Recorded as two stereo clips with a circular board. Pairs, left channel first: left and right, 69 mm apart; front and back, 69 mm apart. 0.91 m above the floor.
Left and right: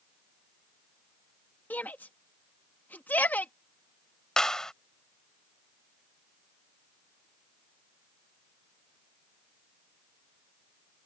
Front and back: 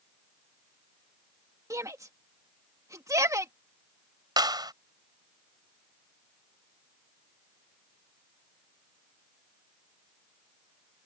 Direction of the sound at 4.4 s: 170° left.